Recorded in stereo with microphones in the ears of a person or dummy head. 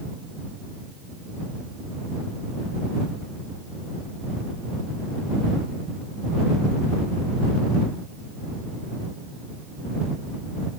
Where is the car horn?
No car horn in this recording.